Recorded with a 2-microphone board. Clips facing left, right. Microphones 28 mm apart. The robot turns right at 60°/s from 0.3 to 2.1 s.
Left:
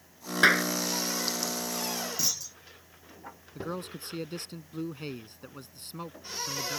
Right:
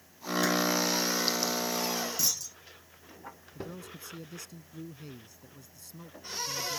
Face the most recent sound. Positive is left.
turn(degrees=60)  # may be behind; listen again after turning